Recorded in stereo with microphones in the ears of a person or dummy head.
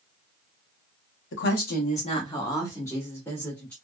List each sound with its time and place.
1.3 s a woman speaking: 55° left (ahead or behind), 0.9 m; by 3.7 s centre (ahead or behind), 2 m